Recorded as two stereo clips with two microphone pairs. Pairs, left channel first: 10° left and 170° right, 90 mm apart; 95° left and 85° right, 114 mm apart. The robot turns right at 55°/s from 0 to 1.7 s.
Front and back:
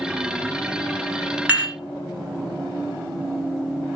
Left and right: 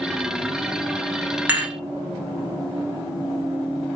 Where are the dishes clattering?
130° right, 1.0 m; by 1.8 s 115° right, 1.0 m.